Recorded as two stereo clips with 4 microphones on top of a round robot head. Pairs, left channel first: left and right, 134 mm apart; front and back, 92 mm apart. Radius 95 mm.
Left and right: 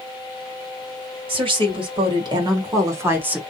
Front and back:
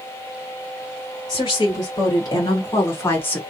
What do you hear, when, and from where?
1.3 s a woman speaking: 45° right, 2 m; by 3.4 s 25° right, 1.0 m